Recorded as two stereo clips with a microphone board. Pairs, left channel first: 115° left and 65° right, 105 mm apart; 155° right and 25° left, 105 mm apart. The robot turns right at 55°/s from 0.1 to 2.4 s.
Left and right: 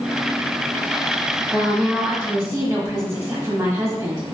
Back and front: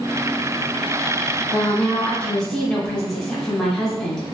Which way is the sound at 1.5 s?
130° right.